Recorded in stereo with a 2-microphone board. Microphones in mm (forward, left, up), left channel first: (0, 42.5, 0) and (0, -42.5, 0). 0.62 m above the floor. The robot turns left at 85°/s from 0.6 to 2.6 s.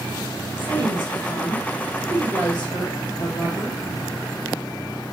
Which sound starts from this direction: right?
A woman speaking, at 0.6 s.